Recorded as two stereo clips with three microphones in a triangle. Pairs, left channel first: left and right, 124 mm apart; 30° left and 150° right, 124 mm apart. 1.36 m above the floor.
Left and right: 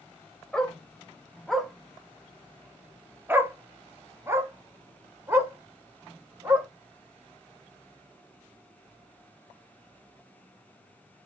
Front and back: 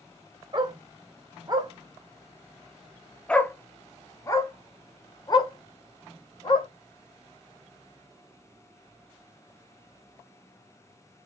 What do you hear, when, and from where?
0.5 s a dog barking: 170° left, 1.5 m; by 6.7 s 20° right, 2.5 m